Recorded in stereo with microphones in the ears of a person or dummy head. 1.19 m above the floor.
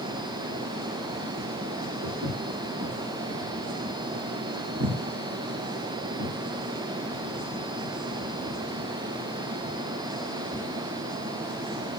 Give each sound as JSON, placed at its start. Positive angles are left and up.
{"t": 2.0, "sound": "footsteps", "side_deg": -75, "distance_m": 5.0}